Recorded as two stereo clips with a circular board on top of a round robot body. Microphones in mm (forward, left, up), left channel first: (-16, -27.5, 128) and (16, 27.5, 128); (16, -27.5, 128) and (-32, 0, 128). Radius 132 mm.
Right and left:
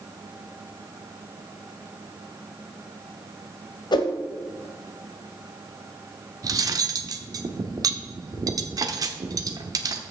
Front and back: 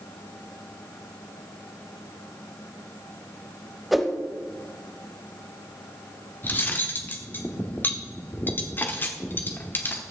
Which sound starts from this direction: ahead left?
Cutlery clinking, at 6.4 s.